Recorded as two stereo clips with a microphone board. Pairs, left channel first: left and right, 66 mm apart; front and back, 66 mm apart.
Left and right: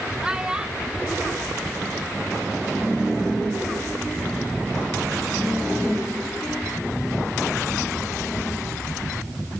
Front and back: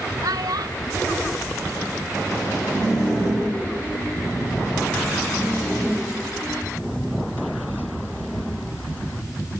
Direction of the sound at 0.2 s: 165° right.